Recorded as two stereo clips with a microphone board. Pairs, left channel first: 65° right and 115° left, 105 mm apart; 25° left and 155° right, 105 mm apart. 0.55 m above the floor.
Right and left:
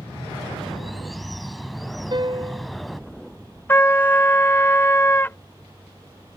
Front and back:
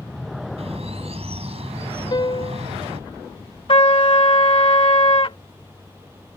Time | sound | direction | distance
0.6 | a bird | 160° right | ?
2.1 | a piano | 70° left | ?
3.7 | a trumpet | straight ahead | ?